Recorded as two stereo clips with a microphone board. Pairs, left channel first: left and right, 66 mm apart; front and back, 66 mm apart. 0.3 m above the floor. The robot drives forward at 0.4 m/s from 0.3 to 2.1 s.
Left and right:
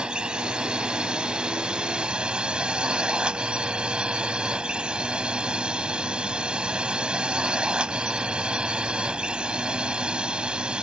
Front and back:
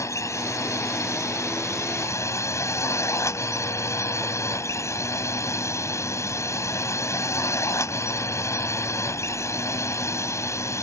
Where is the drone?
15° right; by 10.8 s 20° right.